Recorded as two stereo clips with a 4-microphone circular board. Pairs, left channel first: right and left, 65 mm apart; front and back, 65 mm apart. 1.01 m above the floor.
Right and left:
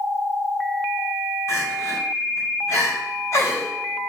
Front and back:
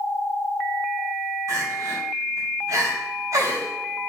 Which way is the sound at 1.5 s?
140° right.